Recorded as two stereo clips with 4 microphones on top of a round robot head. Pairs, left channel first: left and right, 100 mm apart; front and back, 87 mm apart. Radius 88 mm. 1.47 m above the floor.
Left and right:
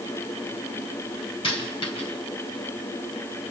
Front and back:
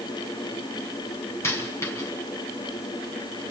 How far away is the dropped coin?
About 4.5 m.